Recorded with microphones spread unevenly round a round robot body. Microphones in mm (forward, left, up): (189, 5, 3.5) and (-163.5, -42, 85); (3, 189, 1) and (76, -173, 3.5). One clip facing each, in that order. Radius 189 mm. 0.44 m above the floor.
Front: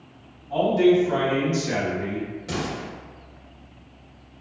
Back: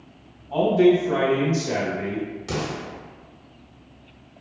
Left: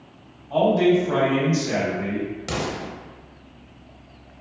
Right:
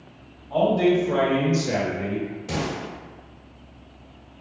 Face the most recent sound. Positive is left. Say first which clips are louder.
# back 1 dB, even
turn(degrees=110)